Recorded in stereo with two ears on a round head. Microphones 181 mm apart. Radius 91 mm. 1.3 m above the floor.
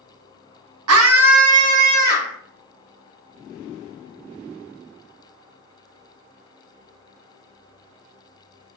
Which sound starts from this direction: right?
A scream, at 0.9 s.